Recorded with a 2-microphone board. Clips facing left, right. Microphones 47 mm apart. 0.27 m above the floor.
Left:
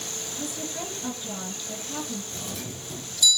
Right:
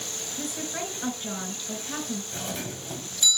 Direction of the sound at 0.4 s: 70° right (ahead or behind).